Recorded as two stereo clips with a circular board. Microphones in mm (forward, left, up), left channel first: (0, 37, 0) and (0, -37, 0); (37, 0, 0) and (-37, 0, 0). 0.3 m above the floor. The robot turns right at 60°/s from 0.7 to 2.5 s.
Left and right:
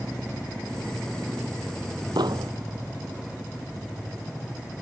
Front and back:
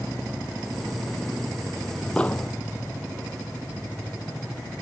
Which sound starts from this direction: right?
An explosion, at 2.2 s.